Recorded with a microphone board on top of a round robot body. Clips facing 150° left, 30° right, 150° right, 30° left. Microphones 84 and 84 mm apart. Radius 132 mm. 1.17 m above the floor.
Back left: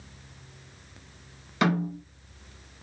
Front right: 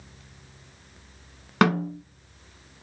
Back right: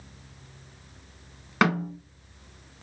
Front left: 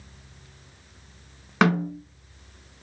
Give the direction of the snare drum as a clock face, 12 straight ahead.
2 o'clock.